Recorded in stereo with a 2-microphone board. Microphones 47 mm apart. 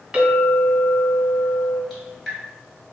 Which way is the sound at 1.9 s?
Centre (ahead or behind).